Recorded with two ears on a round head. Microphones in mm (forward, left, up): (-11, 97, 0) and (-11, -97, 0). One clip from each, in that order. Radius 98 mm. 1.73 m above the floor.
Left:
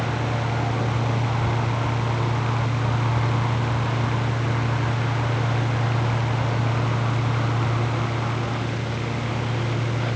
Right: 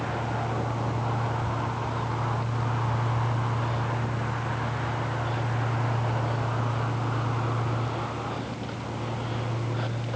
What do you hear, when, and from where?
Only background noise.